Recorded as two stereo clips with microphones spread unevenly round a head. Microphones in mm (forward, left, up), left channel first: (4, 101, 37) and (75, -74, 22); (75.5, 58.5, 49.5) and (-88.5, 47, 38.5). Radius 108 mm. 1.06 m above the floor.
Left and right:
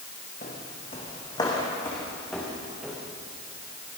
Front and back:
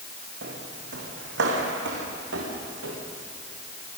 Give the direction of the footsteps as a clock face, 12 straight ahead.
6 o'clock.